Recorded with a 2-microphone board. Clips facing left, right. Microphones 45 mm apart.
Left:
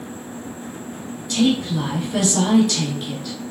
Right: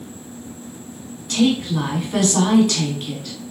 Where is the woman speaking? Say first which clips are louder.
Right 1 dB; 55° right (ahead or behind), 1.6 m.